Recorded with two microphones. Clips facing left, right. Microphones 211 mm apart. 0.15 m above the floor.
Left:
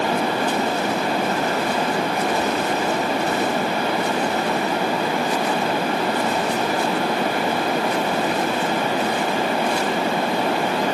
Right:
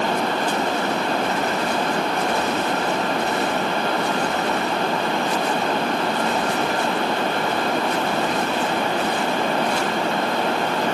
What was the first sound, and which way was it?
Only background noise.